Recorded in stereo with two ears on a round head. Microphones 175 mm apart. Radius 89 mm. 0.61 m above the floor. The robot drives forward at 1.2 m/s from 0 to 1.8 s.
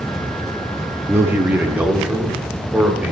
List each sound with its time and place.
1.1 s a man speaking: 10° right (ahead or behind), 0.5 m; by 3.1 s 5° right (ahead or behind), 1.1 m